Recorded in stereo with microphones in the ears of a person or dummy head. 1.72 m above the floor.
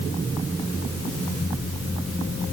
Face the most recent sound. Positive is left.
No sound to turn to.